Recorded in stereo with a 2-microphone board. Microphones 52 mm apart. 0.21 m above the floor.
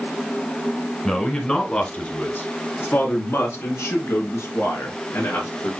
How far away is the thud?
No thud in this recording.